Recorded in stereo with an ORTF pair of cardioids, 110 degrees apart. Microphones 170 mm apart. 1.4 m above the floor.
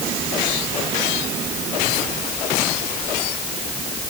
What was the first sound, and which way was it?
Only background noise.